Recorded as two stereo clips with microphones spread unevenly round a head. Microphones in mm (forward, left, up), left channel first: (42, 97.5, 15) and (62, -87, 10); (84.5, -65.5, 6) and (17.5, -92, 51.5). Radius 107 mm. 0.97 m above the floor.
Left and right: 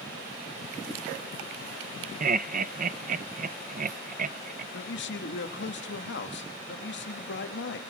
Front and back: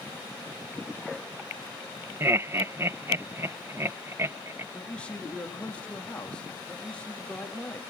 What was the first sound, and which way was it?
Laughter, 75° right.